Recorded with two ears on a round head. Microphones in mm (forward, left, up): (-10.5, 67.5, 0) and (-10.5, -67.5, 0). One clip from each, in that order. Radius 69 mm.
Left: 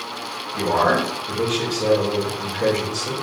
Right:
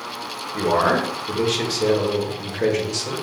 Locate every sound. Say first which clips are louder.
0.5 s a man speaking: even; 60° right (ahead or behind), 1.2 m